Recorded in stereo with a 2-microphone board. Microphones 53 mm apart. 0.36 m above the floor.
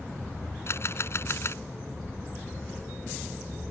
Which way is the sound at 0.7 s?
55° left (ahead or behind).